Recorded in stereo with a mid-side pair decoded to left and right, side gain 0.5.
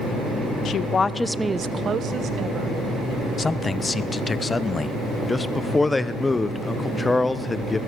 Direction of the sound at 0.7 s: 60° left.